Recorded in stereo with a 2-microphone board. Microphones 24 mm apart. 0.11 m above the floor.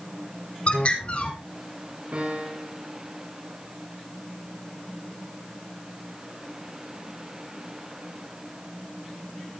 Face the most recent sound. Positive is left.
turn(degrees=-70)  # may be behind; listen again after turning